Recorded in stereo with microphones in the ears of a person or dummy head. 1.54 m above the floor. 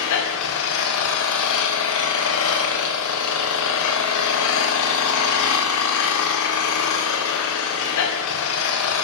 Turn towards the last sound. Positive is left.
turn(degrees=70)  # may be behind; listen again after turning